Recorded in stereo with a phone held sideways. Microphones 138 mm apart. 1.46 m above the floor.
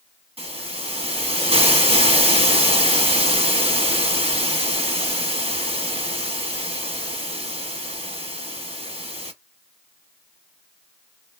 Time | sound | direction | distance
0.4 | a hiss | 45° right (ahead or behind) | 0.9 m